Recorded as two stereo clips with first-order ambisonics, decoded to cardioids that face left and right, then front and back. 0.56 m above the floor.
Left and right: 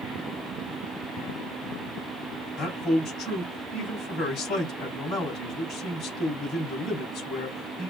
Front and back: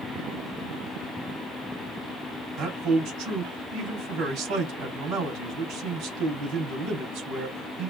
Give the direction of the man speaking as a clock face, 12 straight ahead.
7 o'clock.